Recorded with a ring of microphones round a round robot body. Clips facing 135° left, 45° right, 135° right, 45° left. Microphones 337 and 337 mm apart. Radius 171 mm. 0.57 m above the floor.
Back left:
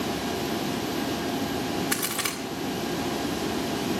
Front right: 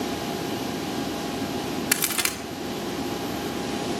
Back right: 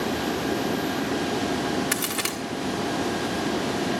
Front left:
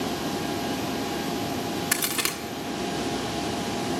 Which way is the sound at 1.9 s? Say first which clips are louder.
Even, back right 2 dB; 45° right.